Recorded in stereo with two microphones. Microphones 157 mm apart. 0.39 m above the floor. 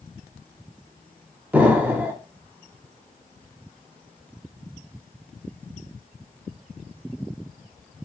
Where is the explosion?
10° right (ahead or behind), 0.5 m.